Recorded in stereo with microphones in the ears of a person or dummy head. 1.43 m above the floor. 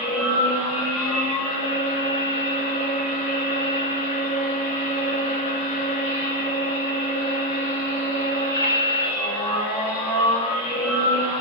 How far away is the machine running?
About 2 m.